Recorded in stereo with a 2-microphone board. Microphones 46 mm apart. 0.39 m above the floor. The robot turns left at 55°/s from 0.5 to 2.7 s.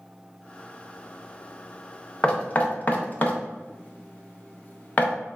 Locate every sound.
2.2 s knocking: 20° left (ahead or behind), 0.6 m; by 5.1 s 35° left (ahead or behind), 0.6 m